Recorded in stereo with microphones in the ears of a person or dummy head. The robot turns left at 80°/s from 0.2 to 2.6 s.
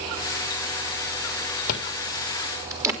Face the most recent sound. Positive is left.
turn(degrees=-10)  # may be behind; listen again after turning